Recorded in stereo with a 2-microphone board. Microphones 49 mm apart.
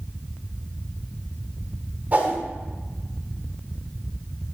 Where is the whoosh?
35° right (ahead or behind), 1.4 m.